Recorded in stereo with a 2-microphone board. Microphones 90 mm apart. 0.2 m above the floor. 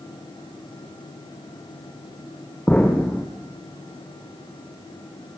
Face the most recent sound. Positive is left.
turn(degrees=15)  # may be behind; listen again after turning